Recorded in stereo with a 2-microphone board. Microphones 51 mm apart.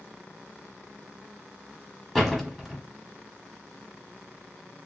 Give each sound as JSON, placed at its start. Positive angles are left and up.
{"t": 2.1, "sound": "a door slam", "side_deg": 5, "distance_m": 1.1}